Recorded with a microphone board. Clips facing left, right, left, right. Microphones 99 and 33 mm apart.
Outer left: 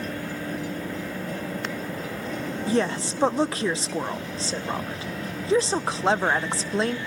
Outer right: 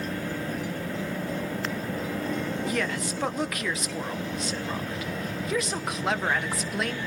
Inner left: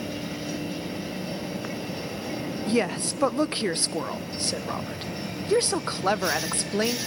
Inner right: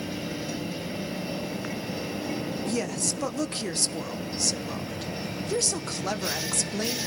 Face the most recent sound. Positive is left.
turn(degrees=30)  # may be behind; listen again after turning